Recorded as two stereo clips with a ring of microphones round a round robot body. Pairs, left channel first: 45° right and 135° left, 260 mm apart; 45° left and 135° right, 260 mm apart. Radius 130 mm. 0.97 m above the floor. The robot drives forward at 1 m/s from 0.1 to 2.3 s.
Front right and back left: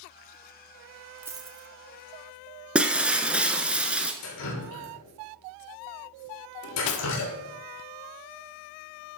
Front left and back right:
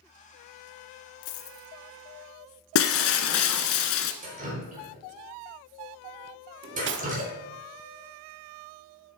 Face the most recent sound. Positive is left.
turn(degrees=-85)